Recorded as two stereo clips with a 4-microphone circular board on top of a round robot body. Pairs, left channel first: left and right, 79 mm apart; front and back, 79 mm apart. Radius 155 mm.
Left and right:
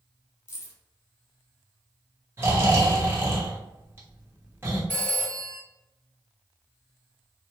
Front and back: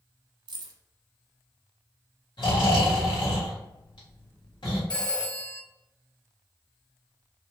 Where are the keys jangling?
150° left, 0.7 m.